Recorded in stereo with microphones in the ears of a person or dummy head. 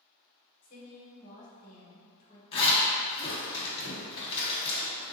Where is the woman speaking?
50° left (ahead or behind), 1.2 m.